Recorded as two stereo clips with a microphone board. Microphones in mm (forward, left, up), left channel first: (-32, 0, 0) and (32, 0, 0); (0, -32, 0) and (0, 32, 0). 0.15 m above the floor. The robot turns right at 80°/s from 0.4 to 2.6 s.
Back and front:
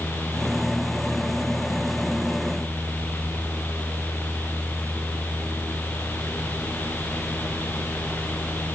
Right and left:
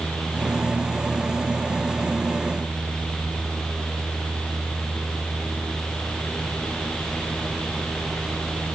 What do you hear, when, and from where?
Only background noise.